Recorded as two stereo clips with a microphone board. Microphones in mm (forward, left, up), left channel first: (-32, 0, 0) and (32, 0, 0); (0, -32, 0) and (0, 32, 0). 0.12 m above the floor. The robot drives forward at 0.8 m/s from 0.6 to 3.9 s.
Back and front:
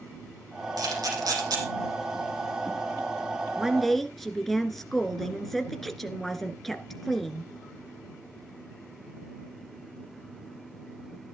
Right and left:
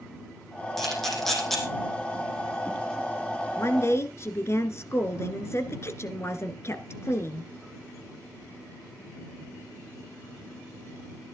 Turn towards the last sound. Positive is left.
turn(degrees=-95)